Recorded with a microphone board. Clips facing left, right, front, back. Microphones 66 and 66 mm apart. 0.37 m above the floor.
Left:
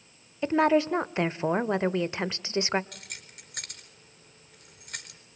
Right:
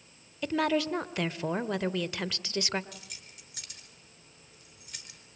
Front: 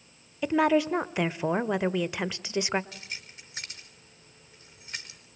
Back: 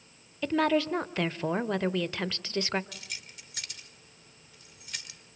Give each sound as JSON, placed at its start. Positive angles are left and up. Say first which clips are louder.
{"t": 0.4, "sound": "a woman speaking", "louder": "left 5 dB, front 3 dB", "azimuth_deg": 60, "distance_m": 1.0}
{"t": 2.9, "sound": "keys jangling", "louder": "left 3 dB, front 2 dB", "azimuth_deg": 60, "distance_m": 4.5}